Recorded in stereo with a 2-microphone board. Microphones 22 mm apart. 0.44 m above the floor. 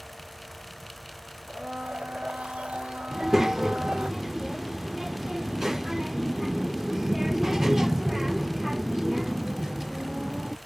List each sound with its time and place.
1.5 s a blender: 60° right (ahead or behind)
3.1 s a child speaking: 20° right (ahead or behind)